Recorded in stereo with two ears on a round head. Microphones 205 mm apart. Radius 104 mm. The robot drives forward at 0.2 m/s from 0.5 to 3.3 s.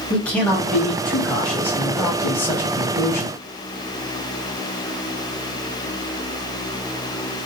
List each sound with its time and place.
0.1 s a man speaking: 5° left (ahead or behind), 1.2 m; by 3.4 s 10° left (ahead or behind), 0.8 m